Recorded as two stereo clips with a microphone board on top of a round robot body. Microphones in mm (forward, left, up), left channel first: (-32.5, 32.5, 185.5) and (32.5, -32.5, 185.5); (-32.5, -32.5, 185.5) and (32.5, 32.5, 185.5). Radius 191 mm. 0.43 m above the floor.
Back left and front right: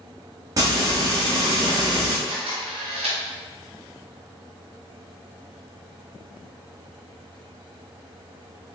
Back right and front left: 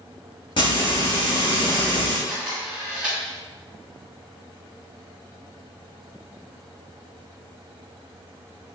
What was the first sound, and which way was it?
Frying, 100° right.